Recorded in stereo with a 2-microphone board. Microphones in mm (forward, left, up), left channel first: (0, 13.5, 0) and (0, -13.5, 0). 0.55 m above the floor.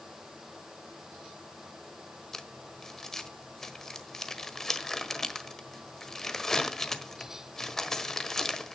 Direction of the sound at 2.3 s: 15° left (ahead or behind).